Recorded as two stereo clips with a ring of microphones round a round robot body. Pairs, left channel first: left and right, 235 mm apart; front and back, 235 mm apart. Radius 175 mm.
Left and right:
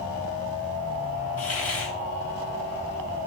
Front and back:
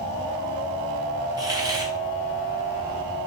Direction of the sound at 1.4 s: 105° left.